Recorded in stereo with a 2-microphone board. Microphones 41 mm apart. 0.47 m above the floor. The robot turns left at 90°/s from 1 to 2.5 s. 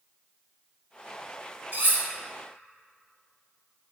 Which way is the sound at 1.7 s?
50° right (ahead or behind).